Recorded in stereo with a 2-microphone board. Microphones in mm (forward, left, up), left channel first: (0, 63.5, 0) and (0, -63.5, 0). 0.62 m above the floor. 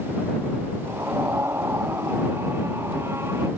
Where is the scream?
20° right (ahead or behind).